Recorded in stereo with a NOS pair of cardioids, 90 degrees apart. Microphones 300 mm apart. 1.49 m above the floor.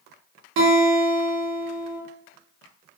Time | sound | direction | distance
0.6 | a guitar | 65° right | 0.9 m